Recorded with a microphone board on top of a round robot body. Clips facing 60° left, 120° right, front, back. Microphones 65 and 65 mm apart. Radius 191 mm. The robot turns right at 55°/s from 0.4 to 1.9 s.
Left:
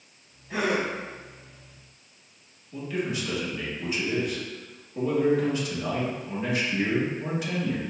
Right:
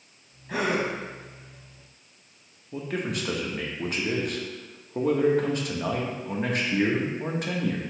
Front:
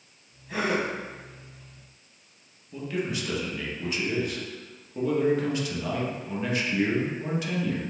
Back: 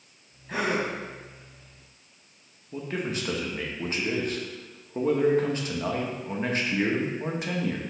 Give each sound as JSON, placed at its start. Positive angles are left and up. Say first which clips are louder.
{"t": 0.5, "sound": "a gasp", "louder": "even, even", "azimuth_deg": -130, "distance_m": 0.7}
{"t": 2.7, "sound": "a man speaking", "louder": "even, front 1 dB", "azimuth_deg": -135, "distance_m": 1.0}